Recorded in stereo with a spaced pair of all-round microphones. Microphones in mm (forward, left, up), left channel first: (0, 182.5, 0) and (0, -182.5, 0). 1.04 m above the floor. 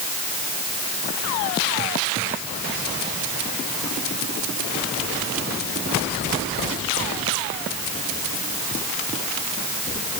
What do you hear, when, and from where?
Only background noise.